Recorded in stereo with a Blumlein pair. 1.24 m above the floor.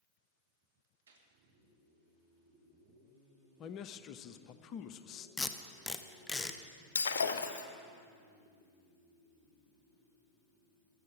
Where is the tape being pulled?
15° left, 0.8 m.